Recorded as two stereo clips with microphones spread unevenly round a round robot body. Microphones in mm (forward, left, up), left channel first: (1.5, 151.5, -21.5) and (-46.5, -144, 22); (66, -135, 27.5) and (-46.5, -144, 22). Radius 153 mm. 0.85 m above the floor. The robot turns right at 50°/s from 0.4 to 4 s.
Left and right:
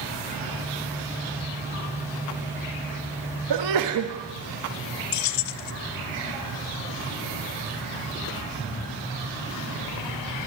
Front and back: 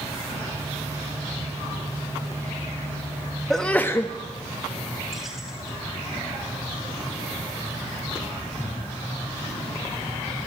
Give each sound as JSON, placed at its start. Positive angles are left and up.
{"t": 3.5, "sound": "a sneeze", "azimuth_deg": -85, "distance_m": 1.3}
{"t": 5.1, "sound": "keys jangling", "azimuth_deg": 95, "distance_m": 0.8}